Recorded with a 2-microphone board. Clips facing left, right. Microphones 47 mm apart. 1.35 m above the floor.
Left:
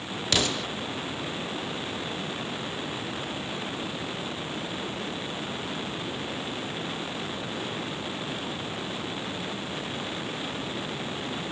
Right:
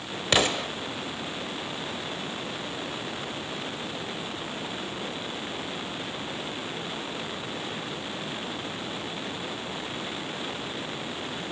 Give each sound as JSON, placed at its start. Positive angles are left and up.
{"t": 0.3, "sound": "an explosion", "side_deg": -25, "distance_m": 0.9}